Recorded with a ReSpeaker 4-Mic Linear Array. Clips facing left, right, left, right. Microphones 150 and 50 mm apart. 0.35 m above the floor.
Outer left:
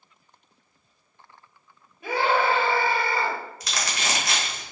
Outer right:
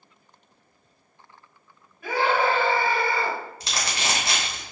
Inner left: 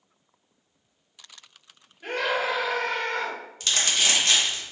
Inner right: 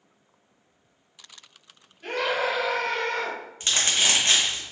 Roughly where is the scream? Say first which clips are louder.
Even, even; left.